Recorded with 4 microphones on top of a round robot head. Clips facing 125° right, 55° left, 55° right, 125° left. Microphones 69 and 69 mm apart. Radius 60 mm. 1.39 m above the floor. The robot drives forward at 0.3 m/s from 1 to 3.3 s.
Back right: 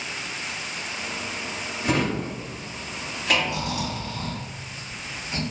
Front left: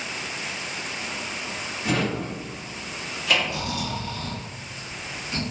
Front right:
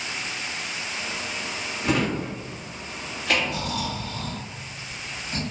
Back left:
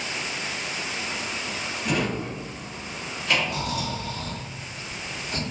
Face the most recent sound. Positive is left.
turn(degrees=165)